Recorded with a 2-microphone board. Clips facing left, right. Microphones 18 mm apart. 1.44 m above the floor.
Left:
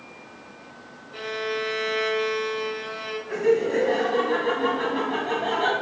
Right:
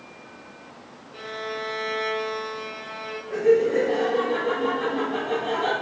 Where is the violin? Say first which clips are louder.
Left 4 dB; 30° left (ahead or behind), 1.0 m.